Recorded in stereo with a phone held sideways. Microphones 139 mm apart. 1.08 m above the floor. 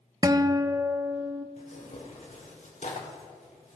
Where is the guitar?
25° right (ahead or behind), 0.5 m.